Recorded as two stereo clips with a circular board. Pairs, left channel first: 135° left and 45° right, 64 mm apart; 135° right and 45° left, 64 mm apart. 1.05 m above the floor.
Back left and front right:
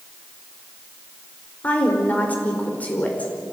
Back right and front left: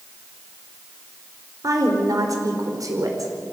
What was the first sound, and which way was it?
A woman speaking, 70° left.